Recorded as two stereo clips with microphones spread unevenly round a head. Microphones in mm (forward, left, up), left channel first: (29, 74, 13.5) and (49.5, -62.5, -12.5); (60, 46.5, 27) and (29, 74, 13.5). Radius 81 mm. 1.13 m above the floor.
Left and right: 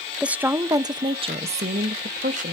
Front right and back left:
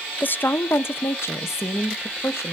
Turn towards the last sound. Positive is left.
turn(degrees=-60)